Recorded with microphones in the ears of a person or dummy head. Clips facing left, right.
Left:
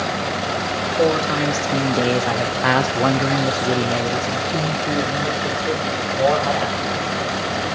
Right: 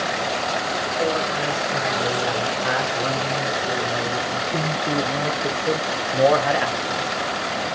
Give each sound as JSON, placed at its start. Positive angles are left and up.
{"t": 1.0, "sound": "a man speaking", "side_deg": 70, "distance_m": 2.0}